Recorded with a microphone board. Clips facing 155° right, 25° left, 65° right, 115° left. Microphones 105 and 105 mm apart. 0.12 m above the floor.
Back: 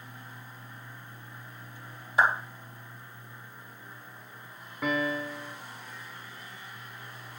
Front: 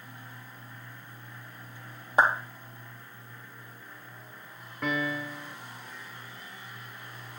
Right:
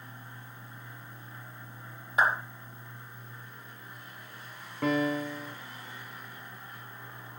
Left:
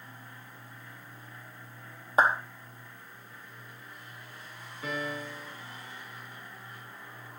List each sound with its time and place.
2.2 s a clap: 60° left, 4 m
4.8 s a piano: 70° right, 2.5 m